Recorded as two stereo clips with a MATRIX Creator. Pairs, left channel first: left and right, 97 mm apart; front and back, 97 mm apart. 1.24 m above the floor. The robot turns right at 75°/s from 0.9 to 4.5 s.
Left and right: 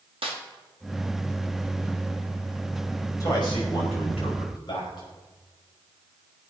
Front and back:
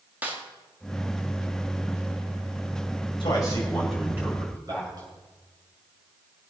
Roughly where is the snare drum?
Right.